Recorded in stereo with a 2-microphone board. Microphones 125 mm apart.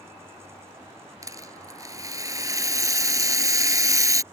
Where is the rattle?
25° right (ahead or behind).